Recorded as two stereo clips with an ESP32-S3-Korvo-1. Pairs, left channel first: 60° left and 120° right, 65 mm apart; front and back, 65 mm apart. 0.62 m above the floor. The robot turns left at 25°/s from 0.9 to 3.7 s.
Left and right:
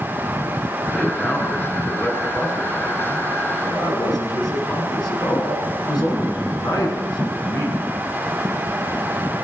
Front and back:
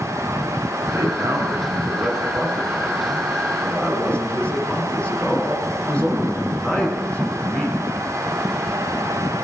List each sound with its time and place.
0.9 s a man speaking: 140° left, 8.5 m; by 8.0 s 70° left, 8.5 m